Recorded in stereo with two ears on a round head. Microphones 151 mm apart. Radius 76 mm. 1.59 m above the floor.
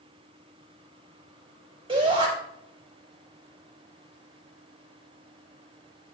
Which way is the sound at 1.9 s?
30° right (ahead or behind).